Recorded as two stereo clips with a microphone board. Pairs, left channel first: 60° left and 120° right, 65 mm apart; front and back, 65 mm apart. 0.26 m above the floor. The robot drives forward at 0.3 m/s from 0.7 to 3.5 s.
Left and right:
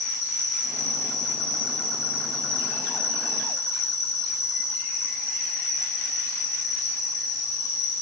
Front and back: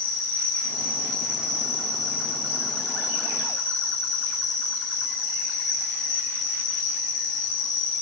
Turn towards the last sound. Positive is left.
turn(degrees=-130)